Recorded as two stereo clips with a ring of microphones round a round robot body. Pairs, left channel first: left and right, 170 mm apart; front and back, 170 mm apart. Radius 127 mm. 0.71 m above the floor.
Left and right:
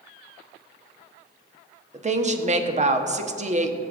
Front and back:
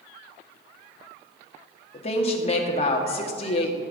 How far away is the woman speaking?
About 1.4 m.